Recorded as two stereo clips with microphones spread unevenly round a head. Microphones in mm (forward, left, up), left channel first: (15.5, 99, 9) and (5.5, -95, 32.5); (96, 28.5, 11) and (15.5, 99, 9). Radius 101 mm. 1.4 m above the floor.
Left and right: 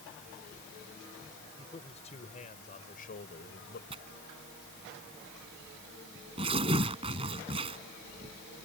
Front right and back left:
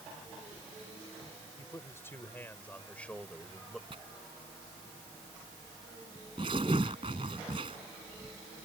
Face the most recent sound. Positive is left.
turn(degrees=-155)